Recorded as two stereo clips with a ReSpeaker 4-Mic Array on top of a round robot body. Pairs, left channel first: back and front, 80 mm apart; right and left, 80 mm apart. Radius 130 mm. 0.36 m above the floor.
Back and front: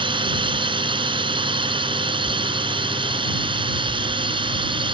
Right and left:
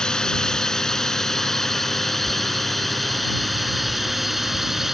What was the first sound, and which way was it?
A drone, 10° right.